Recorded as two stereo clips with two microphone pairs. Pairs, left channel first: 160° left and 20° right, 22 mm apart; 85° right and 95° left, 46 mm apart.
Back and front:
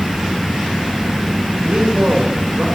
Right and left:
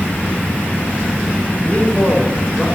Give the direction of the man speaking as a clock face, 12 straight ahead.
1 o'clock.